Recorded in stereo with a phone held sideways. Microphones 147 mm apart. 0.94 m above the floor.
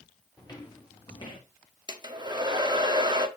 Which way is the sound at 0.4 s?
25° left (ahead or behind).